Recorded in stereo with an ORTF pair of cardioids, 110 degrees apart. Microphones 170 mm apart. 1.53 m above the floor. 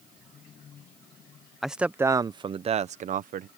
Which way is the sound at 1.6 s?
Straight ahead.